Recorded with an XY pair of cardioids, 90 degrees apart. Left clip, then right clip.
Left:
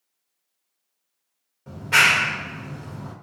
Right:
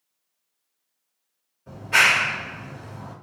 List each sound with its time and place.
1.7 s a clap: 65° left, 1.1 m